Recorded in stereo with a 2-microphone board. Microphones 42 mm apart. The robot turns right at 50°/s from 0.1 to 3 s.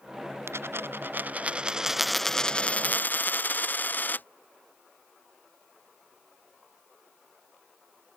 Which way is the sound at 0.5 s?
80° right.